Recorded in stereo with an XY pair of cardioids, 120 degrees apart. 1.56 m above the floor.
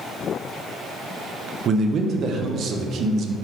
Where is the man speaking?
50° right, 0.6 m.